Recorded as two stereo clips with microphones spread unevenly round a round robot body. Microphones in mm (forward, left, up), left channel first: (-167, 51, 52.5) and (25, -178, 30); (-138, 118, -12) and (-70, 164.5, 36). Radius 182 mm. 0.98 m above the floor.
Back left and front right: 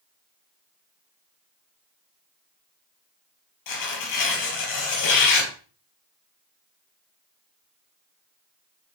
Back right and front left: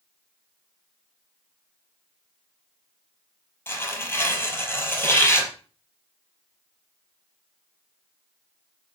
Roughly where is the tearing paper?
Behind left.